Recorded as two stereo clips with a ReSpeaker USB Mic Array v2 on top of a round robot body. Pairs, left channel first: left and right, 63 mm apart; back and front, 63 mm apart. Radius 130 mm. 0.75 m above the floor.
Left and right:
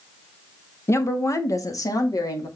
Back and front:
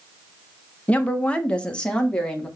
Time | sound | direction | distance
0.9 | a woman speaking | 115° left | 1.3 m